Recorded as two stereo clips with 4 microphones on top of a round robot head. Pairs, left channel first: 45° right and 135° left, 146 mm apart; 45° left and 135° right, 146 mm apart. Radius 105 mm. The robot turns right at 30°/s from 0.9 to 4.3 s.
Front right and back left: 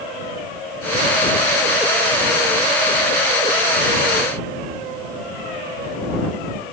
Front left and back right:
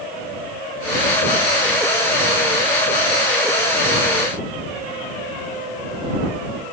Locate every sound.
Only background noise.